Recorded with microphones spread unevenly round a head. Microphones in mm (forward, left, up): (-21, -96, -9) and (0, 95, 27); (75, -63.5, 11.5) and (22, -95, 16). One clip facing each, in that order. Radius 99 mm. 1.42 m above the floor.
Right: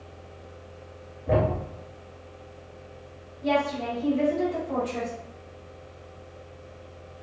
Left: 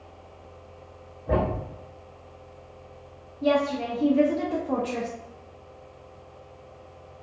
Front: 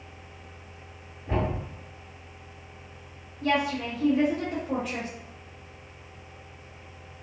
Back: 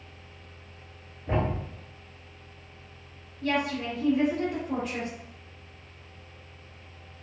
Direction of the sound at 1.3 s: 155° right.